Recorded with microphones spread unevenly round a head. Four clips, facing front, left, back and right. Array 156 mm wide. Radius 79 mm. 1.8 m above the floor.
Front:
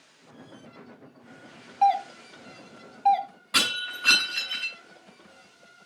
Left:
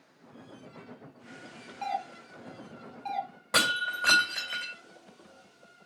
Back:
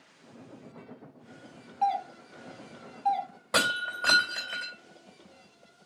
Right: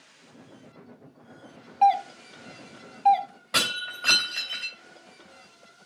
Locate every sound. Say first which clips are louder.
1.8 s a doorbell: right 14 dB, front 6 dB; 40° right, 0.9 m
3.5 s breaking glass: left 3 dB, back 3 dB; 150° left, 3 m